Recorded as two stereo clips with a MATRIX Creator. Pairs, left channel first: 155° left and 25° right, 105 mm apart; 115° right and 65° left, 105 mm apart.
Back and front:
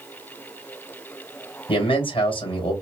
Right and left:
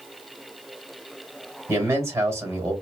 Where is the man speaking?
130° left, 2 m.